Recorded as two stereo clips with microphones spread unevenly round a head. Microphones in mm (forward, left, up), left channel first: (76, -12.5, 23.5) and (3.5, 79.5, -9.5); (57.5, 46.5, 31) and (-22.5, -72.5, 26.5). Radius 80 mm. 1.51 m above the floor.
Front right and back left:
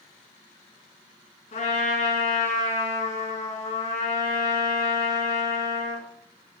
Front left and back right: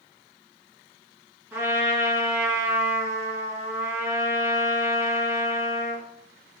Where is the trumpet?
50° right, 4 m.